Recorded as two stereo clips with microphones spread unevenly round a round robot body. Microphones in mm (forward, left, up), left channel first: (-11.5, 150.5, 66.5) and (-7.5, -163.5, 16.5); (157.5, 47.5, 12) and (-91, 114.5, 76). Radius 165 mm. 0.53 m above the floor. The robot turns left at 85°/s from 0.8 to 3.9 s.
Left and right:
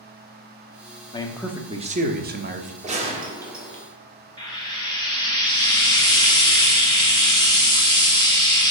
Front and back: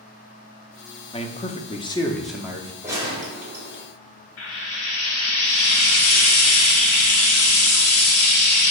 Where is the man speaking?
15° left, 0.8 m; by 2.7 s 125° right, 0.8 m.